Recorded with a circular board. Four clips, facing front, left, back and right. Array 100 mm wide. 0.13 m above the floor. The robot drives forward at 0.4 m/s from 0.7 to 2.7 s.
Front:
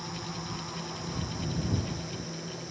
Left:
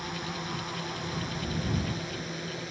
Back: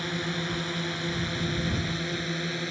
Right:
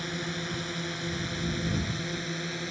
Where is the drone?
165° right.